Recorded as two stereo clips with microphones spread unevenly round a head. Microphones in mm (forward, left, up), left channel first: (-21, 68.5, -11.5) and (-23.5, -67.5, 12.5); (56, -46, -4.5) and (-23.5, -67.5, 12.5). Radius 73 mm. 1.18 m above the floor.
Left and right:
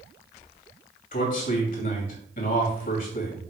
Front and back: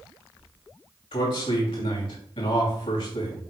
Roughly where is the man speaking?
Ahead left.